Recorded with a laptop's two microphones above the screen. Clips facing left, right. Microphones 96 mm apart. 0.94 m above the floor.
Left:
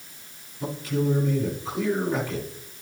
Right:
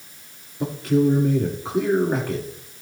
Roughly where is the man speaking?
Right.